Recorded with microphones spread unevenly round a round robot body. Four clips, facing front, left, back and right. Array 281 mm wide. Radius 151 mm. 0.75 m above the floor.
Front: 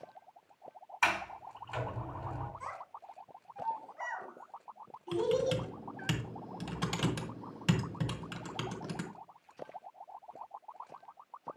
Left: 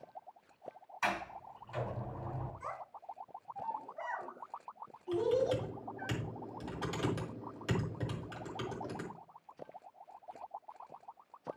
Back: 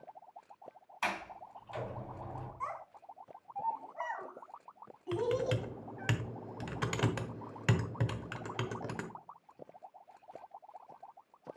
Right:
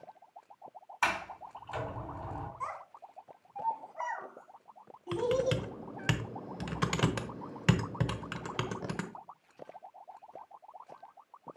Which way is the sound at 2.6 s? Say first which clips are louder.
Right 3 dB, back 2 dB; 120° right.